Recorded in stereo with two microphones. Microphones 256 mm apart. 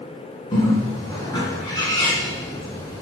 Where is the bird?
15° left (ahead or behind), 1.3 m.